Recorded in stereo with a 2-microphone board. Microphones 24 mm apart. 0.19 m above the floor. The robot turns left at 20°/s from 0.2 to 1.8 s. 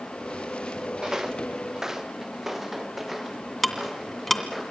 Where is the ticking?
5° left (ahead or behind), 2.0 m.